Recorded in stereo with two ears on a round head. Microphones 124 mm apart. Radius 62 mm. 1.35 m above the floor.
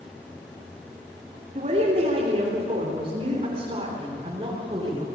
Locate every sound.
1.6 s a woman speaking: 45° right (ahead or behind), 3.5 m; by 5.1 s 30° right (ahead or behind), 5 m